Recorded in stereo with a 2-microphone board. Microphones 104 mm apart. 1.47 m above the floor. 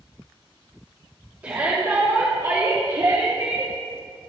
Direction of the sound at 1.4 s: 20° right (ahead or behind).